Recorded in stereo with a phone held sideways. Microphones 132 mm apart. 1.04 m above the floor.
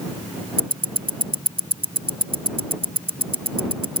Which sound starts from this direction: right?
Ticking, at 0.6 s.